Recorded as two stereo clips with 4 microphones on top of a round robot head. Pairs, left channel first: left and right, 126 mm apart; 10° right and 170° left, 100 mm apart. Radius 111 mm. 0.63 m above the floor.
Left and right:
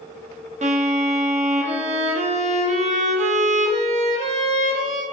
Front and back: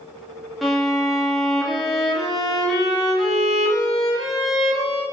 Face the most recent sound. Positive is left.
turn(degrees=-100)